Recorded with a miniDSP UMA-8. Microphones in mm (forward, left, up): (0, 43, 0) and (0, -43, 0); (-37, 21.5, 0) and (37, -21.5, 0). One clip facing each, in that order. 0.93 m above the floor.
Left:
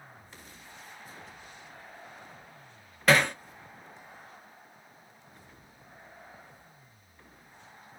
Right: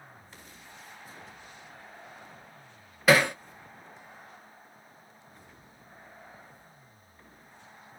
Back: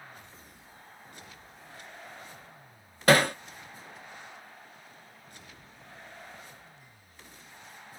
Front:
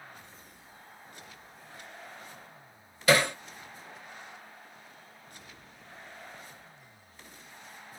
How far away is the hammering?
About 0.6 m.